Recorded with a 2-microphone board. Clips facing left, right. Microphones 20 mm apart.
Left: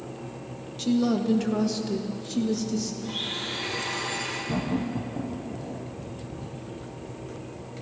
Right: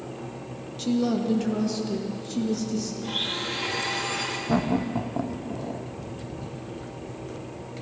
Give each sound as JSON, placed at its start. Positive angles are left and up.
{"t": 0.8, "sound": "a woman speaking", "side_deg": 5, "distance_m": 1.1}
{"t": 3.0, "sound": "a blender", "side_deg": -80, "distance_m": 3.0}
{"t": 4.5, "sound": "laughter", "side_deg": -55, "distance_m": 0.8}